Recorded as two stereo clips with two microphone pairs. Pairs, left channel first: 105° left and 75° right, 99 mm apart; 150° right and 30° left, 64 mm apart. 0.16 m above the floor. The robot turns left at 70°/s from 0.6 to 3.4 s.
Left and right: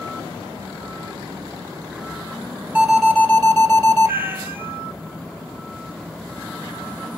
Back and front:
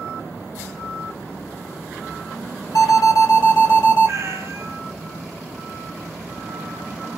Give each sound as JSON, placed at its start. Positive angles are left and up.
{"t": 2.8, "sound": "an alarm", "azimuth_deg": -145, "distance_m": 2.0}
{"t": 4.0, "sound": "a cat meowing", "azimuth_deg": -10, "distance_m": 0.6}